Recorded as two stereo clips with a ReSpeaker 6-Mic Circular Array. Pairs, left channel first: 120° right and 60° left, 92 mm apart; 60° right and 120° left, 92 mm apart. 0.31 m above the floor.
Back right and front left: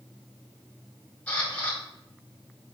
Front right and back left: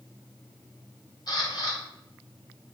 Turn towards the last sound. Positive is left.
turn(degrees=-50)